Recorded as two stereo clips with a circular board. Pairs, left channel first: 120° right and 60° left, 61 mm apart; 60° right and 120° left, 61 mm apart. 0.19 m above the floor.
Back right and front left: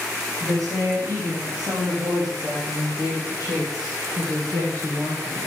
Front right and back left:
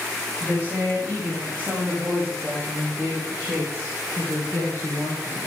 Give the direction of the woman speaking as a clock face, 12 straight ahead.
10 o'clock.